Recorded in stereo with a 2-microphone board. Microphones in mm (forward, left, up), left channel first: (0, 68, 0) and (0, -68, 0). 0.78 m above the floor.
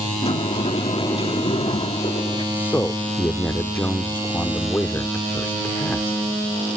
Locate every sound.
0.2 s a sliding door: 45° left (ahead or behind)
2.5 s a man speaking: 15° left (ahead or behind)